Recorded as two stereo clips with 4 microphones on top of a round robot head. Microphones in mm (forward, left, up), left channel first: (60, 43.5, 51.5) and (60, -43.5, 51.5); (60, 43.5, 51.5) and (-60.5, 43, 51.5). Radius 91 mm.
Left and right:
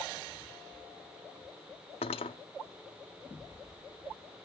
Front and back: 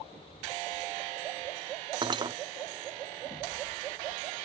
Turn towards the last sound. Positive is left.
turn(degrees=125)